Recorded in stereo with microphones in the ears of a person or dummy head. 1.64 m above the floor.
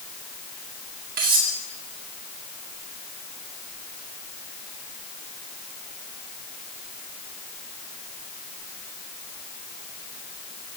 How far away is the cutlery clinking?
About 1.8 m.